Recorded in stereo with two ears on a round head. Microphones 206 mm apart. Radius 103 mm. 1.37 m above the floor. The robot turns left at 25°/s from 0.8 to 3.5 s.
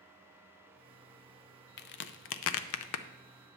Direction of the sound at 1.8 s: 45° left (ahead or behind).